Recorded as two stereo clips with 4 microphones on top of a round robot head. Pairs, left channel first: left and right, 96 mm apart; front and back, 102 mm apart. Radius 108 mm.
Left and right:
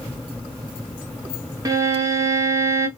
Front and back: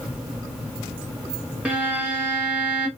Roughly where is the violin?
Right.